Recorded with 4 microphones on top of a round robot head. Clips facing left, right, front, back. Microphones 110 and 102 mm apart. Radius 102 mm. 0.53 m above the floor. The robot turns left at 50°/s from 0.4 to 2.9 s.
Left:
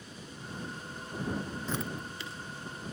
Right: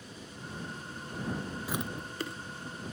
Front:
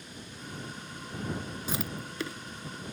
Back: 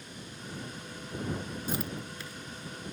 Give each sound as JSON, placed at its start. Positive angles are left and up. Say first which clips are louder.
{"t": 1.7, "sound": "chewing", "louder": "even, even", "azimuth_deg": -10}